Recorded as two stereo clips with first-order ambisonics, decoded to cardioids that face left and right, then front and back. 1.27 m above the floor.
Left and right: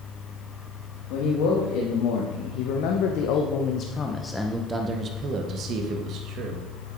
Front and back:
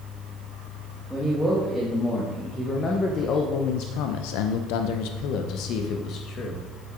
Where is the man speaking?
90° left, 1.8 m; by 6.6 s 50° right, 1.5 m.